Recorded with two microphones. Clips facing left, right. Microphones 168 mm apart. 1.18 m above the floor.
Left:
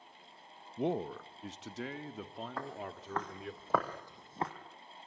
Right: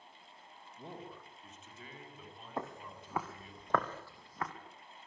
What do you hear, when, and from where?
0.8 s a man speaking: 65° left (ahead or behind), 0.9 m; by 3.6 s 80° left, 3.5 m
2.6 s footsteps: 20° right (ahead or behind), 3.5 m; by 4.5 s 30° left (ahead or behind), 3 m